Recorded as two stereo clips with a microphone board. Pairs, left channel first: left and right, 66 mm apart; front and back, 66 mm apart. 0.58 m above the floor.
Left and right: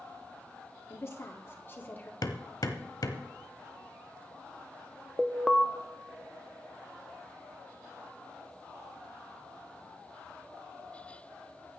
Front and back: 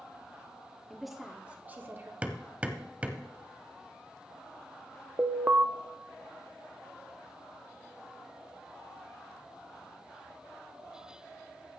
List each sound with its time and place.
0.9 s a woman speaking: 80° left, 1.4 m; by 2.1 s 145° left, 1.7 m
2.2 s hammering: 110° left, 1.2 m
5.2 s an alarm: straight behind, 0.8 m